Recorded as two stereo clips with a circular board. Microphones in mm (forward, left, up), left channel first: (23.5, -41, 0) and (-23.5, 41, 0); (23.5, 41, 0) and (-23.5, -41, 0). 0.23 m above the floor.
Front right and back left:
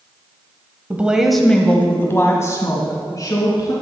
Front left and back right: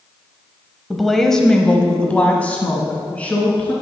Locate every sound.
0.9 s a woman speaking: 150° left, 1.0 m; by 3.7 s 15° right, 2.5 m